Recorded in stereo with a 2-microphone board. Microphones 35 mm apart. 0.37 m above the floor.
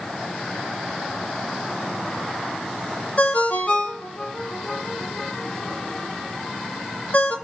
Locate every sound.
3.2 s a ringtone: 50° left (ahead or behind), 1.0 m